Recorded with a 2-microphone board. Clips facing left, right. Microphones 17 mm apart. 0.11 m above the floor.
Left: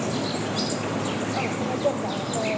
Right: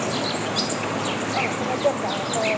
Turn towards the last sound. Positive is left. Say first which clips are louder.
# right 2 dB
turn(degrees=-30)  # may be behind; listen again after turning